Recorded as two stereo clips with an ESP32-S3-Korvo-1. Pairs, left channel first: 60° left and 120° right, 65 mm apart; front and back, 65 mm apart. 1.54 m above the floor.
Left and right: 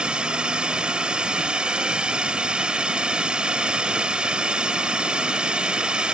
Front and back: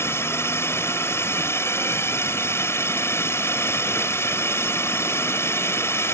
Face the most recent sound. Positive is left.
turn(degrees=-45)